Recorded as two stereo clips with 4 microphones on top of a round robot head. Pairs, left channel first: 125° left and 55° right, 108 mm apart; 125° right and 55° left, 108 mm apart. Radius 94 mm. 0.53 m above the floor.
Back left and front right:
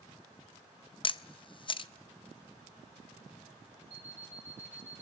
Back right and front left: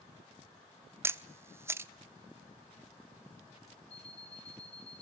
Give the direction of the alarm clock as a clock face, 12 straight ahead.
3 o'clock.